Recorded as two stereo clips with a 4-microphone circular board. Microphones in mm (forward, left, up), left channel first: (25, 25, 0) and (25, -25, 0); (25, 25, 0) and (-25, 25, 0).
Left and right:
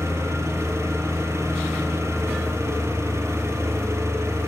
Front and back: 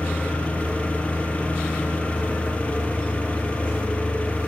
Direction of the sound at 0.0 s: 65° right.